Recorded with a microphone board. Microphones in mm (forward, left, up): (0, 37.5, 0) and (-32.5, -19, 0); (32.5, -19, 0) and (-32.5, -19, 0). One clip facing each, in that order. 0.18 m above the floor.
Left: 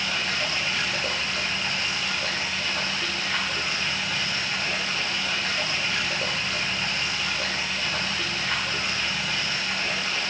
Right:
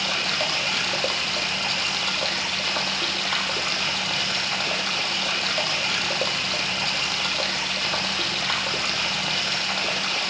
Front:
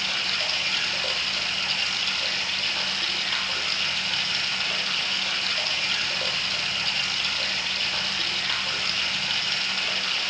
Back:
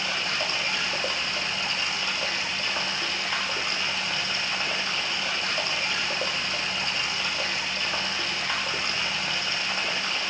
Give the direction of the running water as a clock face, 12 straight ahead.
4 o'clock.